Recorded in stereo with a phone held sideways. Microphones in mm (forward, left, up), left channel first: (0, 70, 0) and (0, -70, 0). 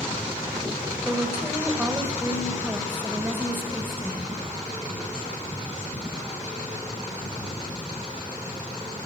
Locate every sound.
1.1 s a woman speaking: 15° right (ahead or behind), 1.2 m